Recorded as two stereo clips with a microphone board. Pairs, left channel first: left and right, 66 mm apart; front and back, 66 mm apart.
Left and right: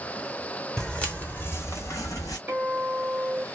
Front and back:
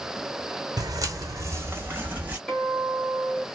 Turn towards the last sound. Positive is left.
turn(degrees=-65)